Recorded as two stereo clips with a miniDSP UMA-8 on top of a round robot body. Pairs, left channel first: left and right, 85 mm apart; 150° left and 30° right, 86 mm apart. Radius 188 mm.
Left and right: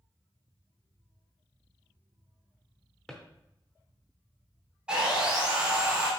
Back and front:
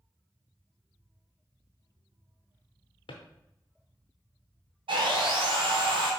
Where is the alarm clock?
No alarm clock in this recording.